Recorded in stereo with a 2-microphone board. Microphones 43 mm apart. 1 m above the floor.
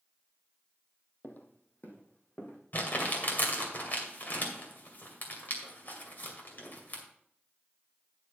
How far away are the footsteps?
About 1.4 m.